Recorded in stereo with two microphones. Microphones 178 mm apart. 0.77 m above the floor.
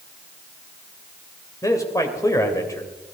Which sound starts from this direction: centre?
A man speaking, at 1.6 s.